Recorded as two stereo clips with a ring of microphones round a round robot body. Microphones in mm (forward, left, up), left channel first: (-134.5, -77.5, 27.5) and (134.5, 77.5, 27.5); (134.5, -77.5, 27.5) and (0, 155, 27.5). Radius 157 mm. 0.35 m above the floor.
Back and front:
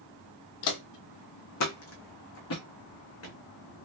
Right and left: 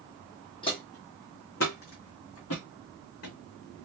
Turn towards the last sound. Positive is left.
turn(degrees=-105)